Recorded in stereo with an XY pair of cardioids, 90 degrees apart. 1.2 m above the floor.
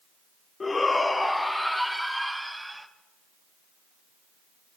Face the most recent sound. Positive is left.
turn(degrees=-5)